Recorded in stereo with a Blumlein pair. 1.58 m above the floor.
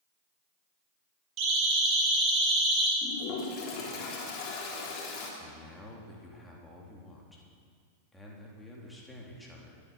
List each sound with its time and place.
1.4 s a siren: 35° right, 5.5 m; by 2.9 s 15° right, 5 m
3.0 s a toilet flushing: 35° left, 3.5 m
5.4 s a man speaking: 5° left, 3.5 m